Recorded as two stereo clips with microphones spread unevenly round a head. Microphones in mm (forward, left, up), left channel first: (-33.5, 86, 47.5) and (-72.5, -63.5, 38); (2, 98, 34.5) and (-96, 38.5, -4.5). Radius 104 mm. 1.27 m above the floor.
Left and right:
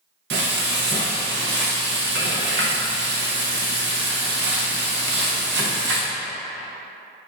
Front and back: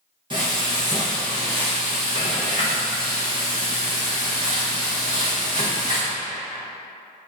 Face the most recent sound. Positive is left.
turn(degrees=-85)